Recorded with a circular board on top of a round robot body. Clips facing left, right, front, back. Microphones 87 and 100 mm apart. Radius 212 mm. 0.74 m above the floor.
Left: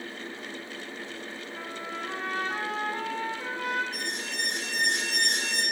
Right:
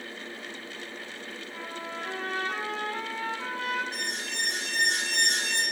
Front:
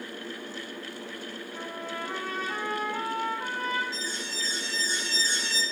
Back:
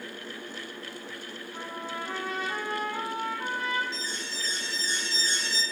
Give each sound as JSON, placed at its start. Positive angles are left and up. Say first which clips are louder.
{"t": 1.5, "sound": "a trumpet", "louder": "even, back 1 dB", "azimuth_deg": -105, "distance_m": 4.5}
{"t": 3.9, "sound": "an alarm", "louder": "even, front 1 dB", "azimuth_deg": -85, "distance_m": 6.0}